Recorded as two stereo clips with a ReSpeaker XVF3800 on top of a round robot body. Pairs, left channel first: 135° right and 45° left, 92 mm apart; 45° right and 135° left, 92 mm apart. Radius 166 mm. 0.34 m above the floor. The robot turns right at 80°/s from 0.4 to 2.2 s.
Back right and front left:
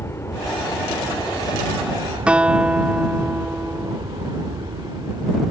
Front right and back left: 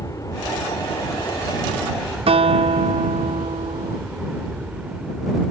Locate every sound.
0.0 s an aircraft: 85° right; by 5.5 s 60° left
2.3 s a guitar: 125° left